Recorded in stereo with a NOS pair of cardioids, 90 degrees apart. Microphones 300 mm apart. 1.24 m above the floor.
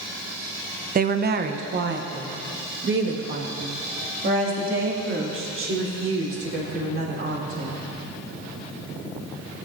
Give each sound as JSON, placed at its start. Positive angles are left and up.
{"t": 0.9, "sound": "a woman speaking", "azimuth_deg": -30, "distance_m": 0.7}